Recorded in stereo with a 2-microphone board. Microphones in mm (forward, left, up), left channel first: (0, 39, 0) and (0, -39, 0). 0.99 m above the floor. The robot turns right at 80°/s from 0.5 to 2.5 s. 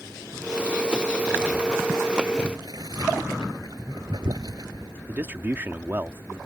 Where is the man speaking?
25° right (ahead or behind).